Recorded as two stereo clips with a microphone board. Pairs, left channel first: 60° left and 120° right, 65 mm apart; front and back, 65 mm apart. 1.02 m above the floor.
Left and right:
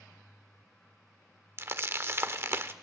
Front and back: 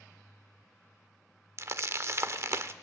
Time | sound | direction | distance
1.6 | crumpling | 155° right | 0.9 m